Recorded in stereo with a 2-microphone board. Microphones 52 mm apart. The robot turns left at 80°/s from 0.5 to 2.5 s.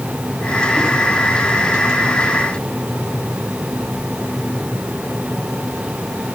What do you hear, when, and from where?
Only background noise.